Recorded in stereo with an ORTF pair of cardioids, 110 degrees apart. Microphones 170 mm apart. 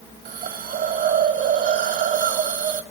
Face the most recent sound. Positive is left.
turn(degrees=-50)